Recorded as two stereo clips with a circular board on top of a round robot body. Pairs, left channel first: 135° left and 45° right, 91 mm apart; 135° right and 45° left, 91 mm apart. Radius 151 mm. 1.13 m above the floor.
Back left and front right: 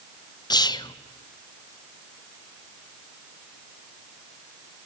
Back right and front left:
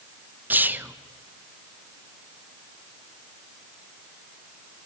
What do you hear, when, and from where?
0.5 s whispering: 110° left, 0.6 m